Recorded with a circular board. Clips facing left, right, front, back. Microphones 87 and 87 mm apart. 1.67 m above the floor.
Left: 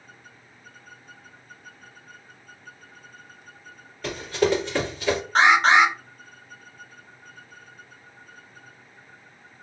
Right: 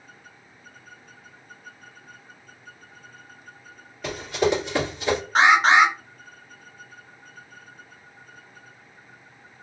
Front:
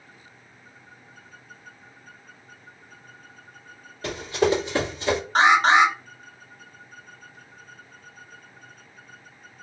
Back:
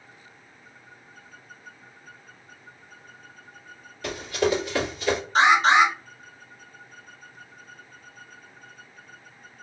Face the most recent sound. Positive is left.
turn(degrees=-10)